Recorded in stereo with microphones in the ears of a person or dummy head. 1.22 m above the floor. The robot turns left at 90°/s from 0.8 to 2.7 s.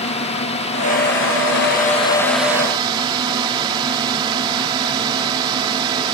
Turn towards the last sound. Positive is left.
turn(degrees=-25)